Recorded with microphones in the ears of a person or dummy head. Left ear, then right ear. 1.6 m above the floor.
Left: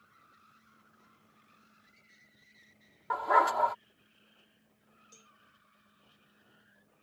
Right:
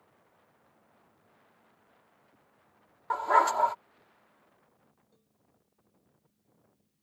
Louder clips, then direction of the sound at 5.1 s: Left 12 dB; 80° left.